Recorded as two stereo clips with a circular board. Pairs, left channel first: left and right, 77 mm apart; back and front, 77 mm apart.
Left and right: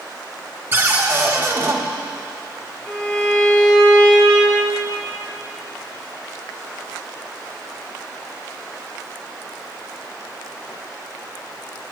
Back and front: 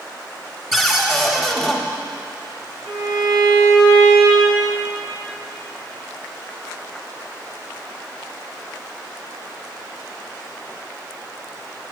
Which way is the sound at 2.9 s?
15° left.